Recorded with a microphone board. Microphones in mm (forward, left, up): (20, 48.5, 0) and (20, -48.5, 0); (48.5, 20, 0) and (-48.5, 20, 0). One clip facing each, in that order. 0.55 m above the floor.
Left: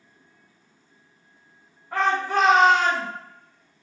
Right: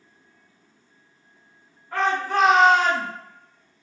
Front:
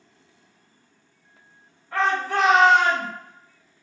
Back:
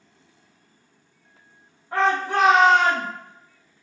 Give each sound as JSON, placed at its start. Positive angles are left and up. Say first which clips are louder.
{"t": 1.9, "sound": "a shout", "louder": "even, back 2 dB", "azimuth_deg": 145, "distance_m": 0.9}